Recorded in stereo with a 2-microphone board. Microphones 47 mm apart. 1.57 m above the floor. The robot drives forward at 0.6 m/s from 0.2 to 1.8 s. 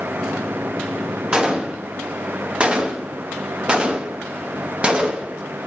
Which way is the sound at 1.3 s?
20° right (ahead or behind).